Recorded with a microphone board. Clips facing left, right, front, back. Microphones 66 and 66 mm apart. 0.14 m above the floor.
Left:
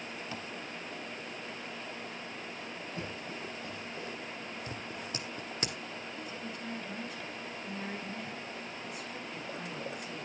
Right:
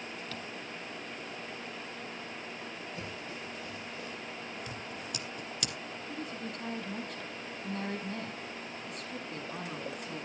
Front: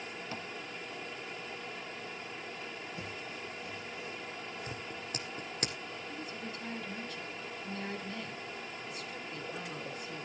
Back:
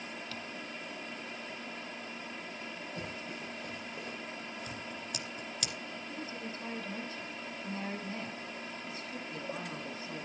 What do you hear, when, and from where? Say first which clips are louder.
0.3 s tapping: left 2 dB, front 2 dB; 35° left, 0.9 m
3.0 s running footsteps: left 1 dB, back 1 dB; 145° left, 7.5 m; by 4.2 s 150° left, 8 m
4.7 s scissors: even, even; 40° left, 1.9 m
6.1 s a woman speaking: right 2 dB, back 2 dB; 120° right, 5.5 m